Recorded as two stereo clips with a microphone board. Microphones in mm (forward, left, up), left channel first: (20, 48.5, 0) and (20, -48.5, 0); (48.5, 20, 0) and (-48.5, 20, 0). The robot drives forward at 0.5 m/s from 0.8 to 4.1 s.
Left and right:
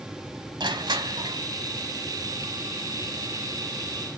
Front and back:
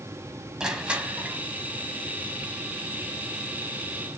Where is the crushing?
100° right, 1.2 m; by 1.4 s 115° right, 1.3 m.